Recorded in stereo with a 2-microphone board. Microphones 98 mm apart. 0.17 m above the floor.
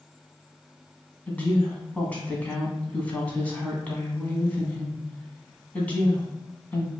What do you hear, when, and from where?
1.3 s a woman speaking: 15° left (ahead or behind), 1.0 m